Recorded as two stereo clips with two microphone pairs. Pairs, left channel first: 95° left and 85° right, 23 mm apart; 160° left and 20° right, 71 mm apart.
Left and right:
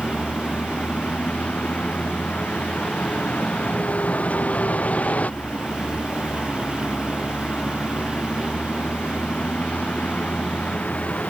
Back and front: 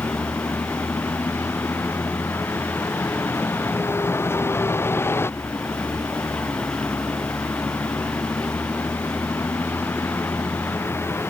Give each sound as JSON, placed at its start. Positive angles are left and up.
{"t": 0.0, "sound": "a vehicle", "azimuth_deg": 105}